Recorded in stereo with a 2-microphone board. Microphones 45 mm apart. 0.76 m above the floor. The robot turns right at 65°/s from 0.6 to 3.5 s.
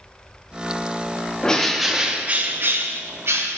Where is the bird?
160° left, 0.6 m; by 3.6 s 65° right, 0.6 m.